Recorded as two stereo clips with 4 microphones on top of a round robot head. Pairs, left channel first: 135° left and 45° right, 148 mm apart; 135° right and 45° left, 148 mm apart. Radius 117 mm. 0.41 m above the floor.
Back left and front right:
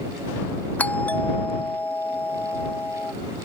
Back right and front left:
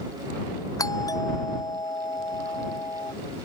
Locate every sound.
0.8 s a doorbell: 160° right